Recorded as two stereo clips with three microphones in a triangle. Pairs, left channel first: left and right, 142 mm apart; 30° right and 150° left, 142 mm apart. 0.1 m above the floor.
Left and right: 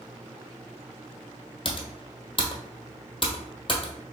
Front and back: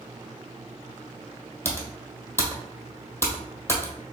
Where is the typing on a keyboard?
40° left, 1.1 m.